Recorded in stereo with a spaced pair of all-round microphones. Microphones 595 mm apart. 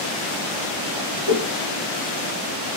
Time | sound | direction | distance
1.2 | a whoosh | 45° left (ahead or behind) | 2.5 m